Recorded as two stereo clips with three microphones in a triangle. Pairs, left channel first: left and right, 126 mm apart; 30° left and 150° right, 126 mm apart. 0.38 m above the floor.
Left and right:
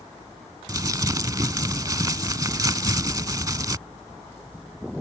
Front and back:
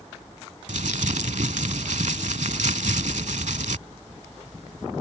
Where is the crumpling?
150° right.